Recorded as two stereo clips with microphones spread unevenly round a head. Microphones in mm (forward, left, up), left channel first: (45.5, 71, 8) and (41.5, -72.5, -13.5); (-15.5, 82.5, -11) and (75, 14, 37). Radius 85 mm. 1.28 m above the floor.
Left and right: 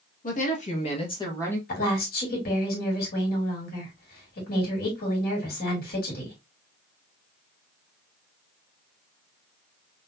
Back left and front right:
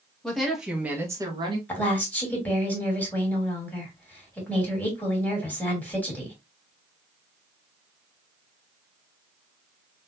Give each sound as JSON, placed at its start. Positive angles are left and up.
{"t": 0.2, "sound": "a woman speaking", "azimuth_deg": 60, "distance_m": 2.0}
{"t": 1.7, "sound": "a woman speaking", "azimuth_deg": 70, "distance_m": 3.0}